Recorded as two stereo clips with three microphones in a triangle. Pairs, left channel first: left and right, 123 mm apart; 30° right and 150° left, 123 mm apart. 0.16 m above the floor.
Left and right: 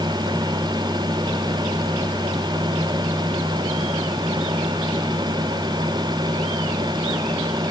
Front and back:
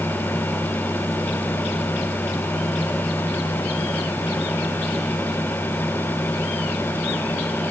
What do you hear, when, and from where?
Only background noise.